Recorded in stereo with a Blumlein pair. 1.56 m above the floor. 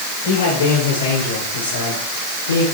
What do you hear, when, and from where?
0.2 s a man speaking: 50° left, 8 m; by 2.6 s 70° left, 5.5 m